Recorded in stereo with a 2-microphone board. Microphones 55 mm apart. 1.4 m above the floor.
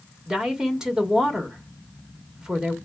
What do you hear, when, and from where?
0.3 s a woman speaking: 15° right (ahead or behind), 1.0 m